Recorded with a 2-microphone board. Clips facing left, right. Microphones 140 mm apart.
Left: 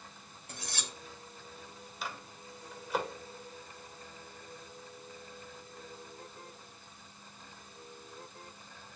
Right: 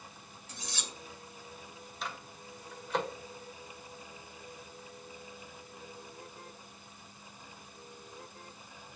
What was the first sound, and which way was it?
Cutlery clinking, 60° left (ahead or behind).